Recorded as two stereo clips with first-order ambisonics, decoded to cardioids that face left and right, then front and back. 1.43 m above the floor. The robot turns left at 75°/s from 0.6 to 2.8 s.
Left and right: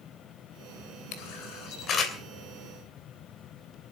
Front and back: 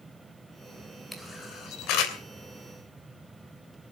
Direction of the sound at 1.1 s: 90° left.